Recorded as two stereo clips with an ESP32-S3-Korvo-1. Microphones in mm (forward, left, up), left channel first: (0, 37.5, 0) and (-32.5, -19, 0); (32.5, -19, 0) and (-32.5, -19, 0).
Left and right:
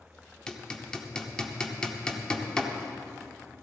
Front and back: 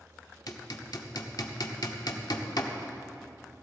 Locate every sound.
0.5 s hammering: 15° right, 1.2 m